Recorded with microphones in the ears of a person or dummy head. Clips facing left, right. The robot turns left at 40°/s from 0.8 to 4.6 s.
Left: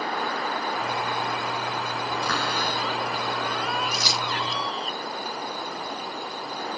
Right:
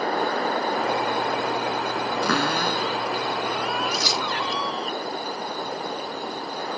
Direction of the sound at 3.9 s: 70° left (ahead or behind).